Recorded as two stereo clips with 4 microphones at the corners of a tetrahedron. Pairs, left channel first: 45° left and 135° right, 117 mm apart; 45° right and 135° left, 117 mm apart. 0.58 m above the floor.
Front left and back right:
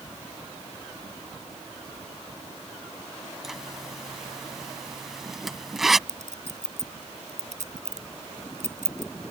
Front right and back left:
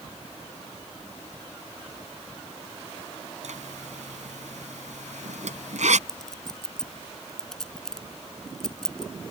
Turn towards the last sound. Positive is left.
turn(degrees=-130)